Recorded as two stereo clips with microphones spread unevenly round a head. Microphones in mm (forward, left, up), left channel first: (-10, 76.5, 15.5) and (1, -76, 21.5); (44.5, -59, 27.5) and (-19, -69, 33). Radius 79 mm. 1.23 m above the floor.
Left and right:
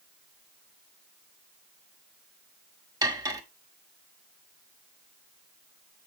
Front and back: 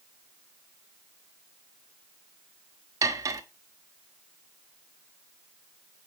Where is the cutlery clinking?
150° right, 1.4 m.